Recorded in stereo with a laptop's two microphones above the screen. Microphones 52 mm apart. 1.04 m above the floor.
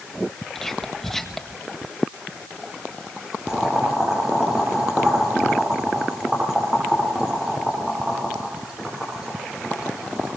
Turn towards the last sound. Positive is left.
turn(degrees=-15)  # may be behind; listen again after turning